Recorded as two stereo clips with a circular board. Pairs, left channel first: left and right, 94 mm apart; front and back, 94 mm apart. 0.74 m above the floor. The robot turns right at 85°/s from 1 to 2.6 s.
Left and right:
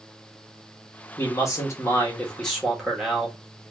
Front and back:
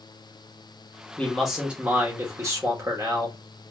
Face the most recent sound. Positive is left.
turn(degrees=-175)